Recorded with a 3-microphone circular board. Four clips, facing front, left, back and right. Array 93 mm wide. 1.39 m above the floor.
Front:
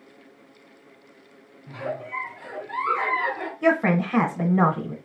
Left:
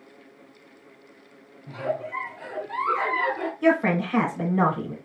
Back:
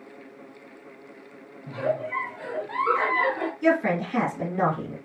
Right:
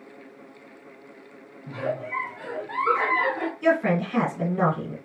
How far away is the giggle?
About 2 m.